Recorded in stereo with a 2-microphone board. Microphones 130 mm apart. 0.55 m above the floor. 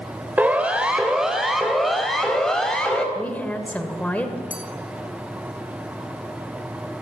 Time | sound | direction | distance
0.4 | a siren | 15° right (ahead or behind) | 2.5 m
3.1 | a woman speaking | 10° left (ahead or behind) | 2.5 m
4.5 | a clink | 80° left | 3.5 m